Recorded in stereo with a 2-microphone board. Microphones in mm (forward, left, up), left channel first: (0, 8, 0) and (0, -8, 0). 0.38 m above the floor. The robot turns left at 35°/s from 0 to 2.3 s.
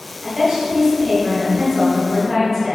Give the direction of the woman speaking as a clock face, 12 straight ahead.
4 o'clock.